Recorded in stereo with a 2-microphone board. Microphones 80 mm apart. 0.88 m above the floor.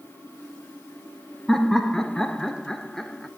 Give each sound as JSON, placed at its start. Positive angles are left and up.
{"t": 1.5, "sound": "laughter", "side_deg": 5, "distance_m": 0.8}